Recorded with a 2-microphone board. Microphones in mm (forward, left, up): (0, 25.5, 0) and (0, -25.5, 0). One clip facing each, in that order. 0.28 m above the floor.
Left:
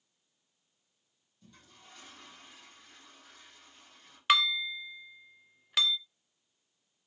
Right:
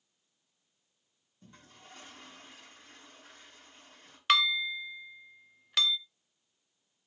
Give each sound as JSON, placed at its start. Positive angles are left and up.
{"t": 1.4, "sound": "a toilet flushing", "side_deg": -35, "distance_m": 7.0}
{"t": 4.3, "sound": "dishes clattering", "side_deg": 5, "distance_m": 0.7}